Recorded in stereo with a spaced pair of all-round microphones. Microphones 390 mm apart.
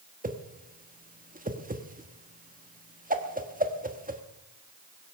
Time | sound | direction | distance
0.2 | a whoosh | 20° right (ahead or behind) | 1.3 m